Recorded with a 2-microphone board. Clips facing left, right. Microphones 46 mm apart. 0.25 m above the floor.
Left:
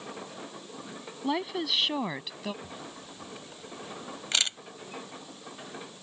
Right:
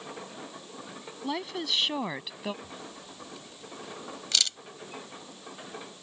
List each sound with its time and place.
1.2 s a woman speaking: 10° left (ahead or behind); by 2.5 s 10° right (ahead or behind)
2.6 s a camera shutter: 30° left (ahead or behind)